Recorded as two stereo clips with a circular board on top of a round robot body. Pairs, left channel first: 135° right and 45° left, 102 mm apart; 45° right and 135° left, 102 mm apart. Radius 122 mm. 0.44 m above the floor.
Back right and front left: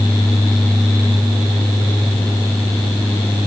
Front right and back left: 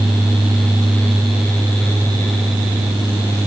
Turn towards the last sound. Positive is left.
No sound to turn to.